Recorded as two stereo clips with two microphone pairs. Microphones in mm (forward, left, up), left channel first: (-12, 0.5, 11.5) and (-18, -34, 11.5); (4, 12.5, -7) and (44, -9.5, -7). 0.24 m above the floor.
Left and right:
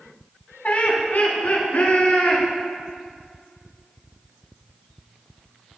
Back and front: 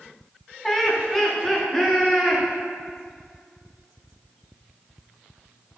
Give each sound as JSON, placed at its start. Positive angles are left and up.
{"t": 0.6, "sound": "laughter", "azimuth_deg": 65, "distance_m": 1.8}